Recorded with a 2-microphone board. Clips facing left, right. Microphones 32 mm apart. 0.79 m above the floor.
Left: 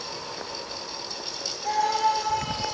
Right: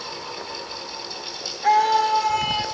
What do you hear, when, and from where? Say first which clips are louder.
1.6 s a scream: right 6 dB; 60° right (ahead or behind), 1.7 m; by 2.7 s 70° right (ahead or behind), 1.8 m